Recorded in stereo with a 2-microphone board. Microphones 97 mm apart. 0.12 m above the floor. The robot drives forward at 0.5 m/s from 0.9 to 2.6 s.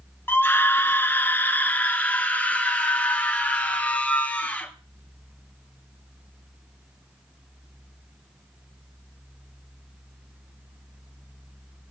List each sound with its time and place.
0.3 s a scream: 20° left (ahead or behind), 1.2 m; by 4.7 s 15° left (ahead or behind), 1.7 m